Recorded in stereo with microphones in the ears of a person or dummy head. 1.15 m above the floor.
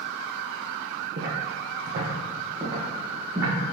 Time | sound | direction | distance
1.2 | footsteps | 55° right (ahead or behind) | 2 m